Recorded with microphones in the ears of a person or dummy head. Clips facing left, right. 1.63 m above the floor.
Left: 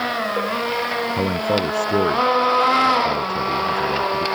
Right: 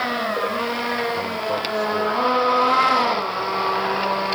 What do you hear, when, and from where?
1.2 s a man speaking: 40° left (ahead or behind)